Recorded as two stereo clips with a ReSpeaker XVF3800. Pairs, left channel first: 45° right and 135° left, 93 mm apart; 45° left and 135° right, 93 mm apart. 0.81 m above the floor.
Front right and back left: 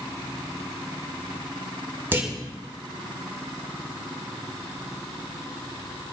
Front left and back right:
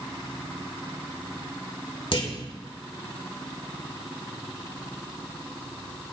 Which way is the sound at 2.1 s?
70° left.